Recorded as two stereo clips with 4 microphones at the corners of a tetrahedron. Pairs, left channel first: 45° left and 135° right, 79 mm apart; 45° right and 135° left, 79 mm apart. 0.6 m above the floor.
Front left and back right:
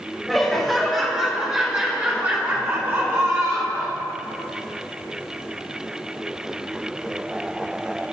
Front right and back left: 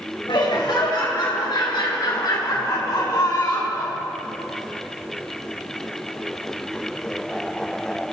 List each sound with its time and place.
0.3 s laughter: 45° right, 3 m; by 4.0 s 90° right, 2.5 m